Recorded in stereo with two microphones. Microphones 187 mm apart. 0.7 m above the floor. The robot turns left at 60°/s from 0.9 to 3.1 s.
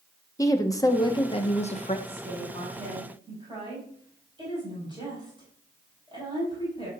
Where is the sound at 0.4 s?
150° left, 0.9 m; by 2.0 s 85° left, 0.9 m.